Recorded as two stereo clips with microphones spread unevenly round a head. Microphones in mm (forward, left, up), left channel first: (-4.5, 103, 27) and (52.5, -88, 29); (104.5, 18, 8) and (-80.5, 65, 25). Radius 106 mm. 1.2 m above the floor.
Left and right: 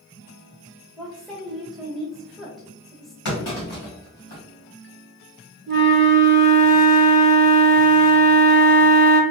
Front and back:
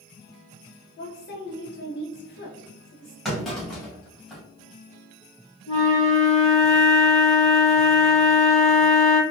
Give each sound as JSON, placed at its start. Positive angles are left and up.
{"t": 1.0, "sound": "a woman speaking", "azimuth_deg": 15, "distance_m": 0.8}
{"t": 3.2, "sound": "a clunk", "azimuth_deg": 75, "distance_m": 1.8}
{"t": 5.7, "sound": "a flute", "azimuth_deg": -85, "distance_m": 1.2}